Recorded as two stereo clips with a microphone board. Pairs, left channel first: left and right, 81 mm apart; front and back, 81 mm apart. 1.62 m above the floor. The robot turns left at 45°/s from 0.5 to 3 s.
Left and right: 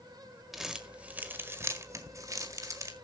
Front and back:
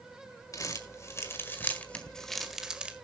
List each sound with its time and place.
0.5 s crumpling: 5° right, 1.7 m; by 2.9 s 110° right, 1.7 m